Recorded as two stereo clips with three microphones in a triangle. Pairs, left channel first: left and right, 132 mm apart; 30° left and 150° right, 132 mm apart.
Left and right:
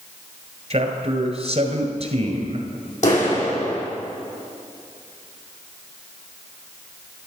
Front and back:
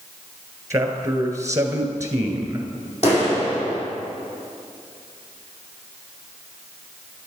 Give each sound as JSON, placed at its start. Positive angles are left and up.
{"t": 0.7, "sound": "a man speaking", "azimuth_deg": -90, "distance_m": 1.9}
{"t": 3.0, "sound": "a clap", "azimuth_deg": 65, "distance_m": 5.0}